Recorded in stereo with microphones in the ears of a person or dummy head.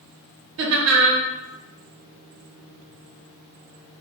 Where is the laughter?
65° right (ahead or behind), 0.9 m.